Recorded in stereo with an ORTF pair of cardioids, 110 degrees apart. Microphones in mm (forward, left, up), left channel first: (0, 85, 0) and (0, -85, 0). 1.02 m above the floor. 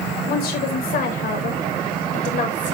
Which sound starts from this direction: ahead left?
A woman speaking, at 0.3 s.